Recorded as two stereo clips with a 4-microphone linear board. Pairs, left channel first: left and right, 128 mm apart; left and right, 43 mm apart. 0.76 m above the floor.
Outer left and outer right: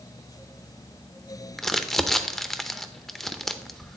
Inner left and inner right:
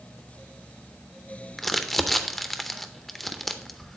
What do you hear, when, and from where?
1.6 s crumpling: centre (ahead or behind), 0.5 m